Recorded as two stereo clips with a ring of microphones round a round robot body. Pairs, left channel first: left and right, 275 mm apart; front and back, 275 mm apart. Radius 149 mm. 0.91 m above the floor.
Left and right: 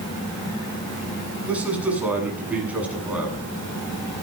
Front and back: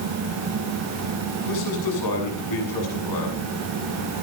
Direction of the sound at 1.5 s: 5° right.